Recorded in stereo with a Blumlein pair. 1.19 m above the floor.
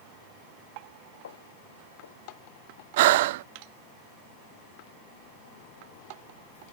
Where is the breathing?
55° right.